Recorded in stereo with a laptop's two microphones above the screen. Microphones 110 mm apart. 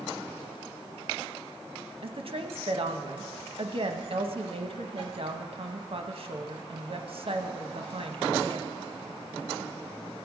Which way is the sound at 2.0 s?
55° right (ahead or behind).